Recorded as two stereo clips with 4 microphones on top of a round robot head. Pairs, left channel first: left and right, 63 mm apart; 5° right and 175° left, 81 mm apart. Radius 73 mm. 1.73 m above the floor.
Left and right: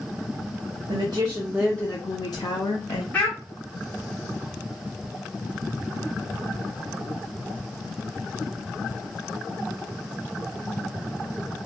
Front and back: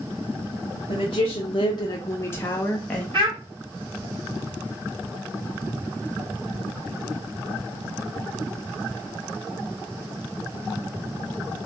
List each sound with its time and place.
0.9 s a woman speaking: 50° right, 0.6 m; by 3.0 s 70° left, 0.9 m
3.1 s a child speaking: 155° left, 1.5 m